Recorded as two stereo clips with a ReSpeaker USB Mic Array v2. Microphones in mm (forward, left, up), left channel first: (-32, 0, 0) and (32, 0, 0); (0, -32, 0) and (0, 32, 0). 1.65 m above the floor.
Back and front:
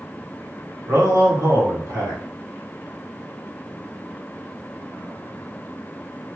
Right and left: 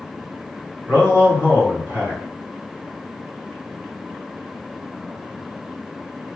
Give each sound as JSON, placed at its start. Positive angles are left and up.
{"t": 0.9, "sound": "a man speaking", "azimuth_deg": 30, "distance_m": 2.0}